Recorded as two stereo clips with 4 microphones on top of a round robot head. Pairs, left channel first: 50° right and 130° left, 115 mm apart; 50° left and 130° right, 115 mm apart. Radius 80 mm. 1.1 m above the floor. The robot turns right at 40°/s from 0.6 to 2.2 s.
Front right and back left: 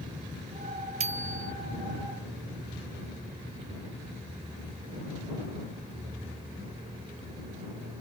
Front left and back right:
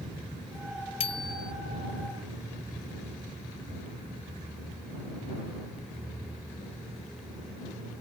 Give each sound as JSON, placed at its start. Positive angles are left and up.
{"t": 1.0, "sound": "a bicycle bell", "azimuth_deg": 95}